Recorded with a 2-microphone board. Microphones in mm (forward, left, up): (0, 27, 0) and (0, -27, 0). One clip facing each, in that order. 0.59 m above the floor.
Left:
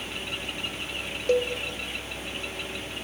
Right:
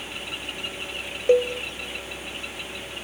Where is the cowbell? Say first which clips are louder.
Right 5 dB; 20° right (ahead or behind), 0.7 m.